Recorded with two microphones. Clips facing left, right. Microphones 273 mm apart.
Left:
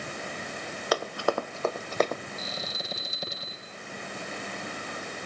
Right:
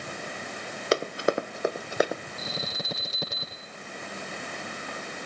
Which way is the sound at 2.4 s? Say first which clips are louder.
Right 2 dB; 80° right.